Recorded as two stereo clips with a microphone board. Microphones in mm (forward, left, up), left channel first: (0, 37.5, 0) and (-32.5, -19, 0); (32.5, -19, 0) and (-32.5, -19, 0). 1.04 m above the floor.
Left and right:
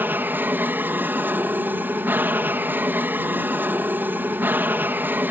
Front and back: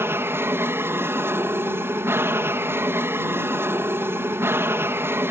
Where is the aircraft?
160° right.